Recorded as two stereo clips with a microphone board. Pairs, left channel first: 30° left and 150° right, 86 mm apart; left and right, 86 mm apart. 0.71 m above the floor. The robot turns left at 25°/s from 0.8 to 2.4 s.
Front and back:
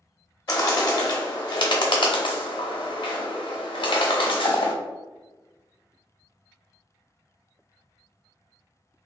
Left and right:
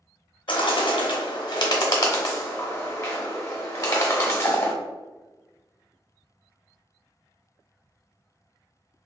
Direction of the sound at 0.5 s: 75° left.